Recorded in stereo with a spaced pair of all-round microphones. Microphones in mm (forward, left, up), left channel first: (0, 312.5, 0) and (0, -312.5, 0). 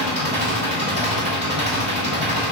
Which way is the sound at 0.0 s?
15° right (ahead or behind).